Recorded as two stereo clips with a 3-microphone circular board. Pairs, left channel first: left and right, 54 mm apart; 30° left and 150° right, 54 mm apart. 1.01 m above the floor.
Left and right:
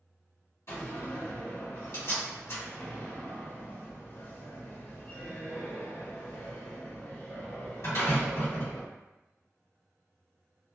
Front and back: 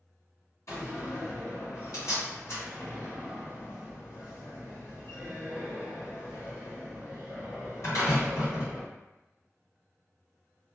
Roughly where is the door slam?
Ahead left.